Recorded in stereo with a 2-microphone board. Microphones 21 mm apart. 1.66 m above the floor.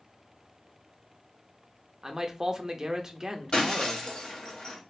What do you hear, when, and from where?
2.0 s a man speaking: 30° right (ahead or behind), 0.6 m
3.5 s breaking glass: 45° left (ahead or behind), 1.5 m